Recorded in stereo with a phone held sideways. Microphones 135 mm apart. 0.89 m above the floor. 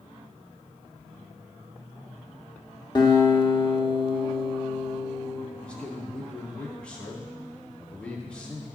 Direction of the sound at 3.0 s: 35° left (ahead or behind).